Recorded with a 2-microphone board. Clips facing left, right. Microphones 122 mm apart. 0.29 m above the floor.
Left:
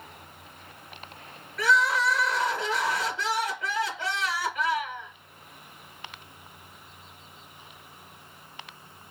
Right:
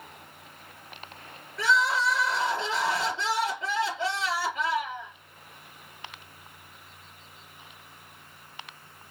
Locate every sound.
1.6 s crying: 25° right (ahead or behind), 4 m